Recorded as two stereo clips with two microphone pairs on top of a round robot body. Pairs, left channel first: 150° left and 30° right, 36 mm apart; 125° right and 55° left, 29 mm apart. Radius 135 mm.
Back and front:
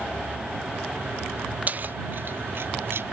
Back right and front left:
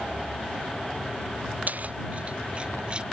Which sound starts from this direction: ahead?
Keys jangling, at 1.7 s.